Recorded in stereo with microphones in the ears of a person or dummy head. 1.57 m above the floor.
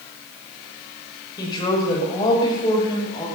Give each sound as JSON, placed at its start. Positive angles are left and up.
{"t": 1.4, "sound": "a woman speaking", "side_deg": 25, "distance_m": 6.0}